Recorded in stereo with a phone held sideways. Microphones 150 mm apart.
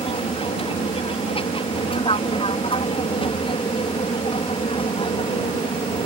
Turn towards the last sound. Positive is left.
turn(degrees=40)  # may be behind; listen again after turning